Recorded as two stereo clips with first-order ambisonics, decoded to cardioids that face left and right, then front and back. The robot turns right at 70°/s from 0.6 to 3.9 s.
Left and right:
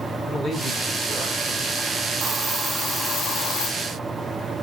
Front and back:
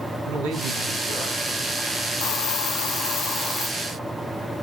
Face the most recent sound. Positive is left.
turn(degrees=90)